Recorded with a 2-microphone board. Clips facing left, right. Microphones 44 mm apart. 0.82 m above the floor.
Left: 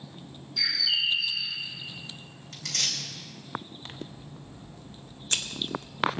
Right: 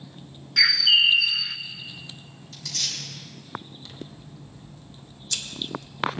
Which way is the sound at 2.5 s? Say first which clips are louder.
Left 1 dB; 50° left (ahead or behind).